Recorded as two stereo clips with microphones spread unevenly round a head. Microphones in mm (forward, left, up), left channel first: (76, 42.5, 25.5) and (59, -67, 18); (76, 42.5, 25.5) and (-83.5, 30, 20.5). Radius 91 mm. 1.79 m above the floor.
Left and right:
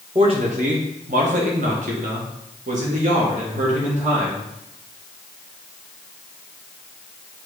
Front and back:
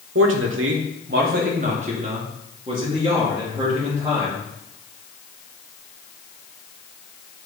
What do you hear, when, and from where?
0.1 s a man speaking: 165° right, 0.9 m; by 4.5 s 100° right, 2.5 m